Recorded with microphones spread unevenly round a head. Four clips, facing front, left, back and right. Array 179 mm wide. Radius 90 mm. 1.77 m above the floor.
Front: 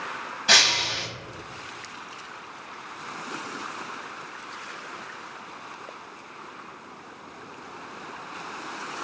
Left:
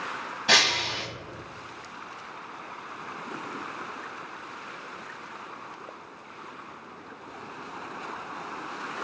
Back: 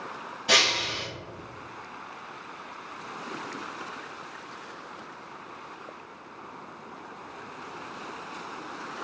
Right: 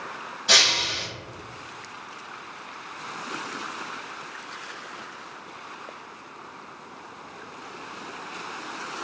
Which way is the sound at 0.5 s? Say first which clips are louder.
Even, front 1 dB; 55° left.